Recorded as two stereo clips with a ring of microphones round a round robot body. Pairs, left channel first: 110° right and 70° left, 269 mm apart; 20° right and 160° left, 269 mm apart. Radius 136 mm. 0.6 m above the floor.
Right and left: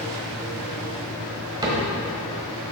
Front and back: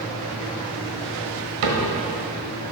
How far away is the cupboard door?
About 1.5 m.